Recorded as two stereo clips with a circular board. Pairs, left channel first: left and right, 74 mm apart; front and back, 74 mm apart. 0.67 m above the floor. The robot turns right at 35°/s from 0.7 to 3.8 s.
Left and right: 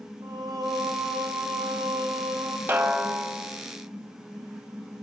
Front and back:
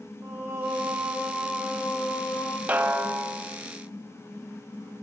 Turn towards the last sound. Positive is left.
turn(degrees=-90)